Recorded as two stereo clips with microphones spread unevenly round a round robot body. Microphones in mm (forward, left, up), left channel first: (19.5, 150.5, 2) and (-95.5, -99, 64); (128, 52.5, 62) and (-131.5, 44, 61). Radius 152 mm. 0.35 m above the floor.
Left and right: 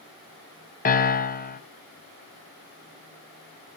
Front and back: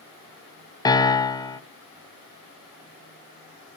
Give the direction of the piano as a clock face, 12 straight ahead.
10 o'clock.